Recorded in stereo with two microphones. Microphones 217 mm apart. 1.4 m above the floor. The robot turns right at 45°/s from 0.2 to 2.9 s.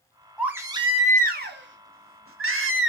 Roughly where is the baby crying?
Behind.